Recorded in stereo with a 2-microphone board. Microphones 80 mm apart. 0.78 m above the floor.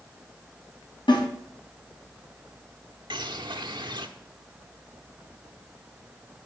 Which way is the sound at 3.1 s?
70° right (ahead or behind).